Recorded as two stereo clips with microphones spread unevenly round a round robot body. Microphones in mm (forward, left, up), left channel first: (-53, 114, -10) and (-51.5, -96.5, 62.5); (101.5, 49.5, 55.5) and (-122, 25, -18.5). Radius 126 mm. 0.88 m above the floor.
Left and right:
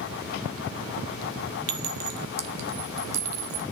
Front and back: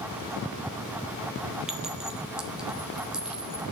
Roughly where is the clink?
Right.